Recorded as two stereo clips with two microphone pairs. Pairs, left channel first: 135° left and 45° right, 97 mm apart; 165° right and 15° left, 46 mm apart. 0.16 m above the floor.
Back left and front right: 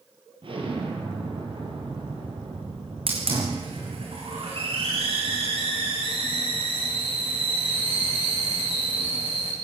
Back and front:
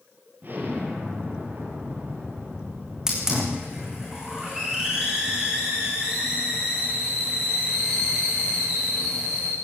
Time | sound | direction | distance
0.4 | an explosion | 25° right | 5 m
3.1 | a hiss | 65° right | 5.5 m